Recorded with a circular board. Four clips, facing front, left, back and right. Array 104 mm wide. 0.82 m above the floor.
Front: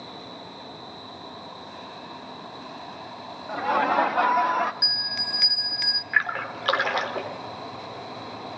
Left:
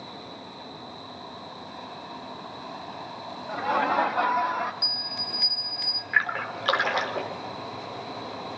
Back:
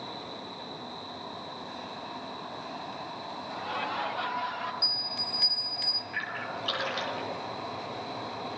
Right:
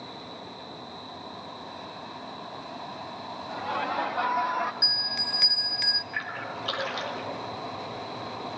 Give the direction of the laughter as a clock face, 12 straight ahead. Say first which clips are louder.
Left 6 dB, front 12 dB; 11 o'clock.